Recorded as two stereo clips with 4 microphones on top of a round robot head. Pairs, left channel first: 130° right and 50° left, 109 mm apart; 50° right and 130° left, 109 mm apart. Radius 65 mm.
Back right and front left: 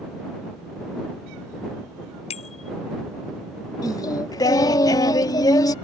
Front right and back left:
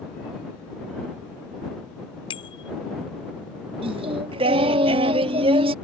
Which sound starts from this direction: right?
A bicycle bell, at 2.3 s.